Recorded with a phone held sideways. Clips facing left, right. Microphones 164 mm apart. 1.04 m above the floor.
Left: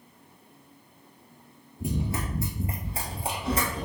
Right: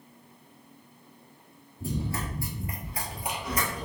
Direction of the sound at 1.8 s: 15° left (ahead or behind).